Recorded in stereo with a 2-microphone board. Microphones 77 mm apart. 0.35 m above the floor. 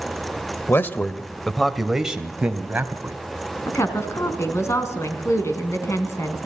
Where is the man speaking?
30° left (ahead or behind), 1.2 m; by 3.2 s 25° right (ahead or behind), 2.5 m.